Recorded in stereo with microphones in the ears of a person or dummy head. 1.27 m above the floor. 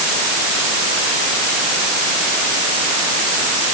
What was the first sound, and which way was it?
Only background noise.